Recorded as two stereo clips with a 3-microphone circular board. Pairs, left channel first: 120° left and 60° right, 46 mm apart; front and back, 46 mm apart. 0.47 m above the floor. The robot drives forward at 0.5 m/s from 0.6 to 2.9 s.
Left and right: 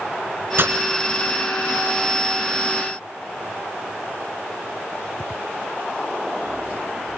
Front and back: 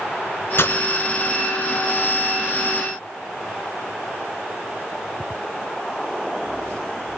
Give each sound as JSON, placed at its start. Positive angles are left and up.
{"t": 0.6, "sound": "breaking glass", "azimuth_deg": -25, "distance_m": 2.0}